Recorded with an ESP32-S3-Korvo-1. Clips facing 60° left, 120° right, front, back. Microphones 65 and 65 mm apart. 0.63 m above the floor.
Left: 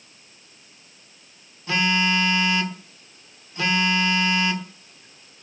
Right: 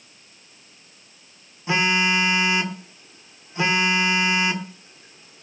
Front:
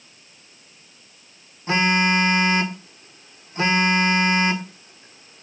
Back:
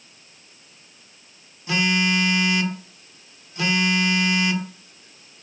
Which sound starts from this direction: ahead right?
A phone buzzing, at 1.7 s.